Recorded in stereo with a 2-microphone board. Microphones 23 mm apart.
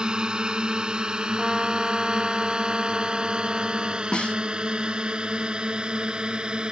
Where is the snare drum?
55° left (ahead or behind).